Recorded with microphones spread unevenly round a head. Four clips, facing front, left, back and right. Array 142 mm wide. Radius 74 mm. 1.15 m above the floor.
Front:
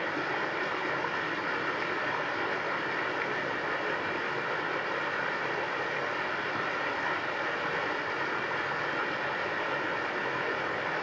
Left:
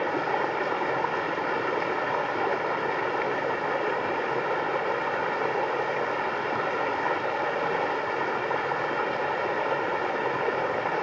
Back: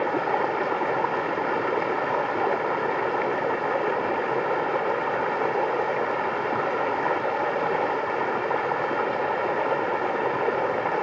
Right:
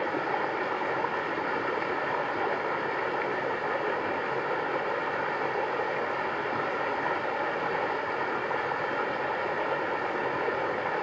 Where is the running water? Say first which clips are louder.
Left 3 dB, back 9 dB; 170° left, 2 m.